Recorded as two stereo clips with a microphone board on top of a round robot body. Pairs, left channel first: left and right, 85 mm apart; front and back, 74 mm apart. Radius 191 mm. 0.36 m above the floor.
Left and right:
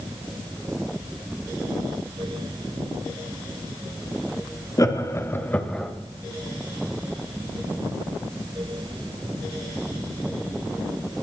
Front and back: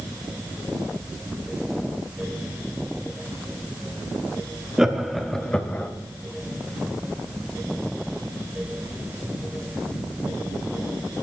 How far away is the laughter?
About 1.6 m.